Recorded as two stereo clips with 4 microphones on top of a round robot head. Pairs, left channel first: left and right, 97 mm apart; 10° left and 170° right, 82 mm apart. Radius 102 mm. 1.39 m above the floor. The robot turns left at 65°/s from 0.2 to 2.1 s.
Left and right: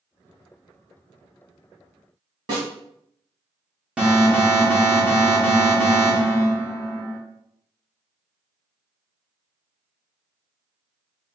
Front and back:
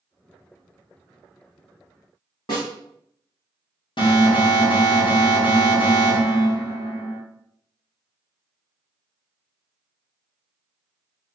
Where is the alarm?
10° right, 1.5 m.